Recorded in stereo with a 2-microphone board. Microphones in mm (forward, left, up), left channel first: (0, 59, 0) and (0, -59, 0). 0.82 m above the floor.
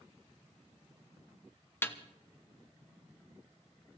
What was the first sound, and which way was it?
A snare drum, 15° left (ahead or behind).